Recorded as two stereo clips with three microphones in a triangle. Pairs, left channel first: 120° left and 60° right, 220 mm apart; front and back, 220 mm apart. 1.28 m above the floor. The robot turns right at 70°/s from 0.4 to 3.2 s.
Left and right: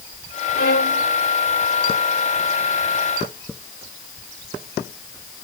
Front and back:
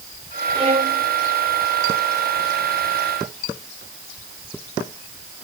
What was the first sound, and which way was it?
A violin, 115° left.